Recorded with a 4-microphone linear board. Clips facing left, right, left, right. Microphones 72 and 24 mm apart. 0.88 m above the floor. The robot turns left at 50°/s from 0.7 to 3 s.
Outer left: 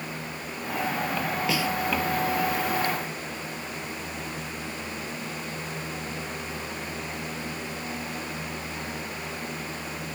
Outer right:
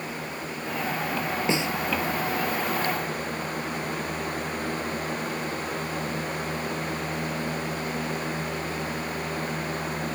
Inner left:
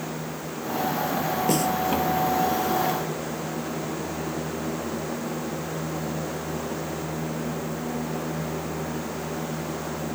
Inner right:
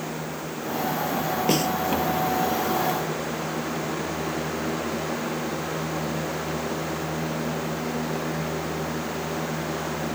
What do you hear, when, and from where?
1.5 s a snare drum: 30° right (ahead or behind); by 1.7 s 15° right (ahead or behind)